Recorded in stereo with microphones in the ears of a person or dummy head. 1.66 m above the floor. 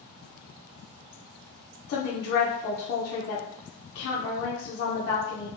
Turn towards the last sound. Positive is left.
turn(degrees=60)  # may be behind; listen again after turning